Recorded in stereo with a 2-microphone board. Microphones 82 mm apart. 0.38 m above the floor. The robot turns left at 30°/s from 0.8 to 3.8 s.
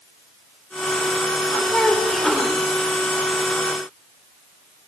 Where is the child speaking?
10° left (ahead or behind), 1.0 m; by 2.6 s 5° right (ahead or behind), 1.0 m.